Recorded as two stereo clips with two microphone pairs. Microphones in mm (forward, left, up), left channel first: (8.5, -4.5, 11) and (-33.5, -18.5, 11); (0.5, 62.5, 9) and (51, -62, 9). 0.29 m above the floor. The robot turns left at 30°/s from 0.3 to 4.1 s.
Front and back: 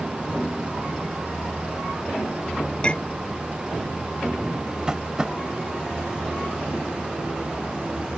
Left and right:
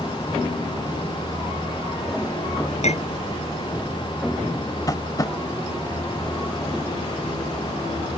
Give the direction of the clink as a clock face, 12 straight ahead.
9 o'clock.